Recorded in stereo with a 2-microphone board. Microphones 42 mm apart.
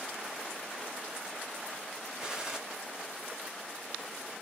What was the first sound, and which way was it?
A gunshot, 20° right (ahead or behind).